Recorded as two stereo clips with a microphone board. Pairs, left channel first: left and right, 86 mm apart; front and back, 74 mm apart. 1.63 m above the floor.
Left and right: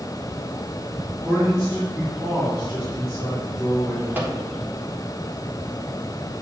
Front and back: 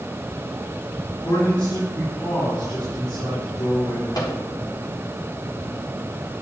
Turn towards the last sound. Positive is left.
turn(degrees=-25)